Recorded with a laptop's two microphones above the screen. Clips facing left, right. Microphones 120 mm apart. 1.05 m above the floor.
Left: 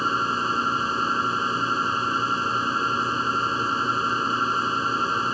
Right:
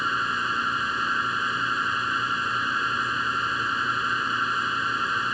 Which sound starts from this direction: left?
A machine running, at 0.0 s.